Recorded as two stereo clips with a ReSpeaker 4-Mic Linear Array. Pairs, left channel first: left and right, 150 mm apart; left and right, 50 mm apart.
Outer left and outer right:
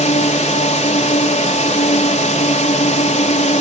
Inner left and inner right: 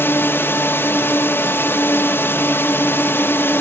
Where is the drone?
50° left (ahead or behind).